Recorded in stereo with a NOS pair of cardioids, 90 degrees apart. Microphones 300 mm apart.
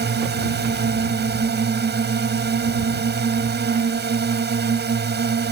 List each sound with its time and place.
0.0 s a drone: 35° right